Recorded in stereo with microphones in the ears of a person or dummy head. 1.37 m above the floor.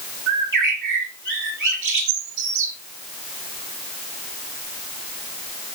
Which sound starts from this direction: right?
A bird, at 0.3 s.